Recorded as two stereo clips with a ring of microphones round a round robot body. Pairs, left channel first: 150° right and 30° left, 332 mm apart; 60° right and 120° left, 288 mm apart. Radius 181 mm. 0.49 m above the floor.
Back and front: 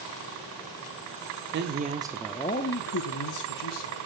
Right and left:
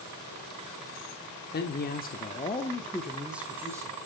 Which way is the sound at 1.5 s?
15° right.